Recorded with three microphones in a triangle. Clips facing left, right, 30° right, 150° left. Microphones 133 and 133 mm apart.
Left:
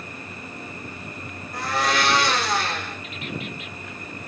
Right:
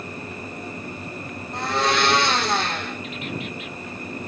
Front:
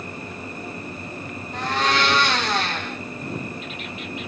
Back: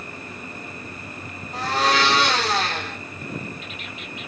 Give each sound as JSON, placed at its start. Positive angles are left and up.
{"t": 1.5, "sound": "a blender", "azimuth_deg": -155, "distance_m": 4.0}